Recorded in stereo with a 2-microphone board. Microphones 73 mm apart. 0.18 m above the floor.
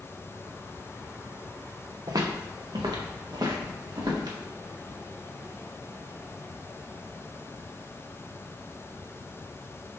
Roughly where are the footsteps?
Right.